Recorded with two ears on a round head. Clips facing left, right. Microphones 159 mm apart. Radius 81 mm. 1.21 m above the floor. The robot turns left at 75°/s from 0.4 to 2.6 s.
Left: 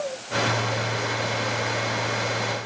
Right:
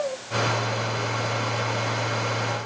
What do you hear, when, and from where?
Only background noise.